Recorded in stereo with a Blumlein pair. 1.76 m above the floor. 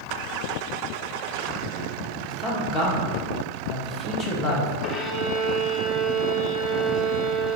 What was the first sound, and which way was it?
A man speaking, 25° left.